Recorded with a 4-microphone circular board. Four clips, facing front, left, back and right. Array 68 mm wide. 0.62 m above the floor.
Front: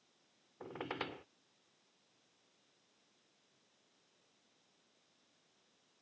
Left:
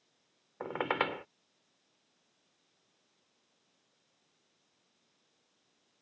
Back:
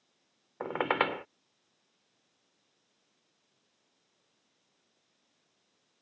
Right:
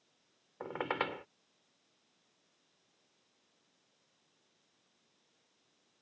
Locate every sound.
0.6 s a squeak: 165° left